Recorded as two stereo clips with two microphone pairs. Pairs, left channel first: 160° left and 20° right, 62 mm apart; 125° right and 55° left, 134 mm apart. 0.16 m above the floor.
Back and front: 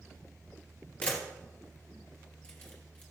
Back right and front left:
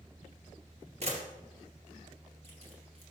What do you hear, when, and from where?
1.0 s a camera shutter: 90° left, 2.5 m